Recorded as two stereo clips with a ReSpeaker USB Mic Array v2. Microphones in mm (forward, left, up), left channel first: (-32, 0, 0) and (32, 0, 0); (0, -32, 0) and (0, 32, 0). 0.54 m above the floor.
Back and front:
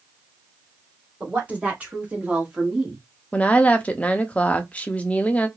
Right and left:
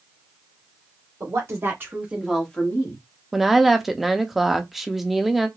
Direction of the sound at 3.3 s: 170° left.